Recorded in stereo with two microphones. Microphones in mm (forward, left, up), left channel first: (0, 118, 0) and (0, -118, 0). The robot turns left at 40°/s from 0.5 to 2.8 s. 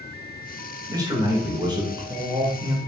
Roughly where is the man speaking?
Centre.